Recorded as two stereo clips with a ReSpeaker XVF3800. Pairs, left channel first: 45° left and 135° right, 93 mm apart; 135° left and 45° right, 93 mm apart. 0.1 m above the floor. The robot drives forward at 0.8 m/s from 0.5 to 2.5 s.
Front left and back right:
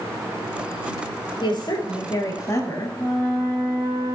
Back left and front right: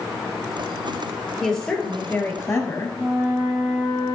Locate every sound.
1.4 s a woman speaking: 50° left, 1.8 m; by 3.0 s 90° left, 1.5 m
3.0 s a flute: 160° right, 3 m